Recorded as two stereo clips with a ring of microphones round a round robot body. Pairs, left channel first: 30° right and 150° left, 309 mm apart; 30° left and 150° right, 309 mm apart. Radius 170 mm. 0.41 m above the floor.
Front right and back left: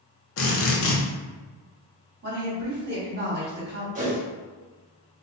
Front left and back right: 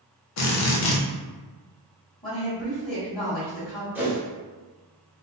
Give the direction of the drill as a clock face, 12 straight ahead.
12 o'clock.